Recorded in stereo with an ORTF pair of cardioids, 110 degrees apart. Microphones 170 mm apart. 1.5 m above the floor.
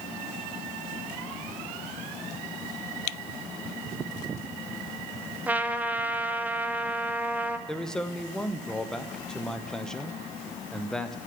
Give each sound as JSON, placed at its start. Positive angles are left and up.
{"t": 5.5, "sound": "a trumpet", "azimuth_deg": -10, "distance_m": 0.6}
{"t": 7.7, "sound": "a man speaking", "azimuth_deg": 5, "distance_m": 0.7}